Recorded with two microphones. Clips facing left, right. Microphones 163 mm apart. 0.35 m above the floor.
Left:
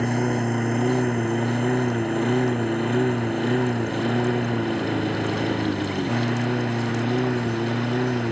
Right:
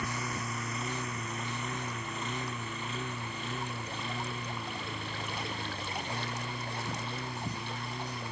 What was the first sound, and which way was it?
A lawn mower, 60° left (ahead or behind).